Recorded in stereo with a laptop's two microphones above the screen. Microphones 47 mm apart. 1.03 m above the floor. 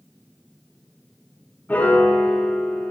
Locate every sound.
1.7 s a piano: 40° left (ahead or behind), 3 m